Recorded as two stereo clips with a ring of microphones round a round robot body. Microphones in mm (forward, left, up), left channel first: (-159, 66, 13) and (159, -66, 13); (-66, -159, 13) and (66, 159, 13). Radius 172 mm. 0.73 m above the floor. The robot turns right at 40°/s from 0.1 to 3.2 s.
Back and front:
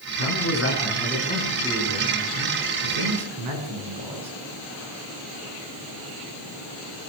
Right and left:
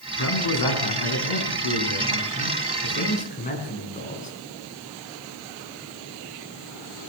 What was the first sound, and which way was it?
A man speaking, 165° right.